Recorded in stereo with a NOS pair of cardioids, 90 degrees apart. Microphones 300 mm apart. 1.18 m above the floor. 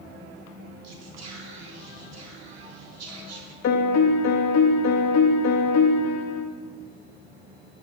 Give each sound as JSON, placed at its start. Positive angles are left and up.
{"t": 0.8, "sound": "whispering", "azimuth_deg": -60, "distance_m": 3.5}
{"t": 3.6, "sound": "a piano", "azimuth_deg": 60, "distance_m": 1.3}